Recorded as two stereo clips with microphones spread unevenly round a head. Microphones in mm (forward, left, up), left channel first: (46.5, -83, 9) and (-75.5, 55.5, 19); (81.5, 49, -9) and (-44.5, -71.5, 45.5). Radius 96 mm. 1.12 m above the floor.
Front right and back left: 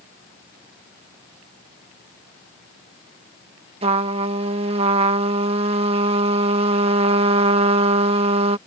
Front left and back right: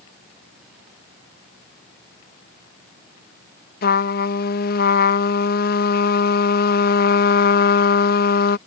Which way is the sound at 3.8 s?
70° left.